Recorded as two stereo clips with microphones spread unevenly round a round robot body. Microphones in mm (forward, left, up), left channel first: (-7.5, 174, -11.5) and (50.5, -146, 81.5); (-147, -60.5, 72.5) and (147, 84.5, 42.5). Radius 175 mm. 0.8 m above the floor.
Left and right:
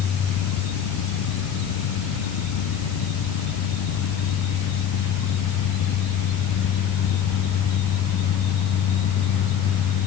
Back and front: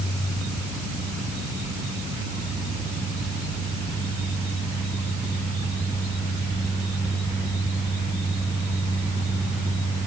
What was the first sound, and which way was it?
Only background noise.